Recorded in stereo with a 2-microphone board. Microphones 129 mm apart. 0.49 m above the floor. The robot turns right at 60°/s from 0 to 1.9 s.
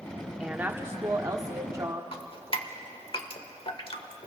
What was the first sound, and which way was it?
A woman speaking, 10° right (ahead or behind).